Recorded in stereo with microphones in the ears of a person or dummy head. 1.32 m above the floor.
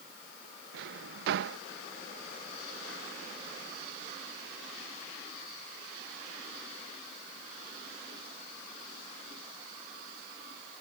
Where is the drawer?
60° right (ahead or behind).